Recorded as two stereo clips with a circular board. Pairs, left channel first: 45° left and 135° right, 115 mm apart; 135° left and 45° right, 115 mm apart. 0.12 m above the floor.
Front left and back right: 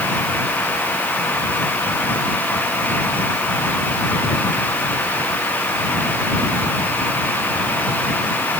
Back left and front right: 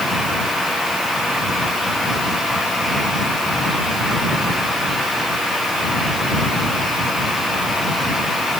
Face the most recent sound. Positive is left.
No sound to turn to.